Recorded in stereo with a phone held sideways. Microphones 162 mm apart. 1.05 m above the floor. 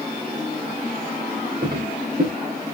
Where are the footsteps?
80° right, 6.5 m.